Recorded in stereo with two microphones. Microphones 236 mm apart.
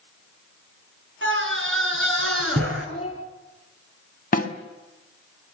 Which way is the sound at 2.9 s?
25° left (ahead or behind).